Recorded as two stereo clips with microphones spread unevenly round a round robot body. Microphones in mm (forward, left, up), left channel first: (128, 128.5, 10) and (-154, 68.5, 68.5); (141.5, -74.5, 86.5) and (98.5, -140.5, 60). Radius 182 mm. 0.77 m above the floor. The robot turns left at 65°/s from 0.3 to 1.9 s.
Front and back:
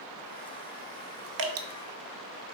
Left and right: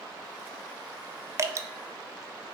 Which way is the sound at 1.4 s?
115° right.